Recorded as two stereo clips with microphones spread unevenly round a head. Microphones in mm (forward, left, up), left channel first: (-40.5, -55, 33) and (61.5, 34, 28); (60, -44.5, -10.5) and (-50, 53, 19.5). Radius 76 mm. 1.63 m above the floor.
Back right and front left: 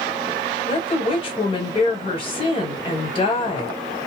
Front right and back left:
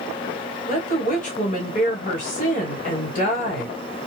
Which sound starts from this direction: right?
A woman speaking, at 0.7 s.